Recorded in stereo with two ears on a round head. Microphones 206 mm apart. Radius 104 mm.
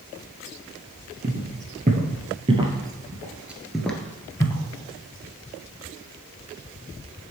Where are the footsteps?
35° right (ahead or behind), 1.8 m; by 4.6 s 20° left (ahead or behind), 1.2 m.